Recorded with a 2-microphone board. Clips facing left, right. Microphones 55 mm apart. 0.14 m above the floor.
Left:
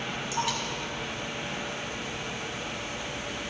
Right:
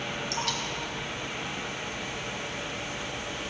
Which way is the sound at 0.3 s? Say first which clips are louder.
Left 4 dB; 10° left (ahead or behind).